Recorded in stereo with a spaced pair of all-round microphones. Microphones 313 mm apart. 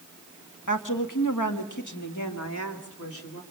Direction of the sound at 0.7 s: 75° left (ahead or behind).